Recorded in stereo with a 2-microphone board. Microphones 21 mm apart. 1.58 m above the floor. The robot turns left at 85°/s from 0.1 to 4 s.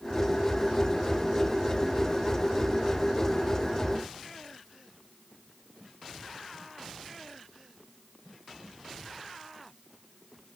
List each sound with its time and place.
Only background noise.